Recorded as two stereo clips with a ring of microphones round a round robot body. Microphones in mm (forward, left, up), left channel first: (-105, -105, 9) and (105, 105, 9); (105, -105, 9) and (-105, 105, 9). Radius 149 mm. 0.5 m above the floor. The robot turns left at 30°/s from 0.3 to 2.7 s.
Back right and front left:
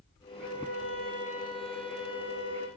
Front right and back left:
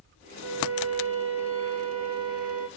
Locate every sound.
0.4 s a violin: 175° right, 5 m; by 2.7 s 115° left, 5 m